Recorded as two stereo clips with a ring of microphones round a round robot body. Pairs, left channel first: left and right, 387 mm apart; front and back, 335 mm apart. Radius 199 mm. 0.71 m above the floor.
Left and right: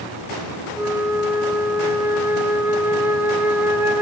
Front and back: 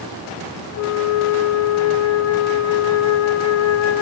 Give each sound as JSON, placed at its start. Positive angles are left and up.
{"t": 0.8, "sound": "a flute", "azimuth_deg": -10, "distance_m": 1.0}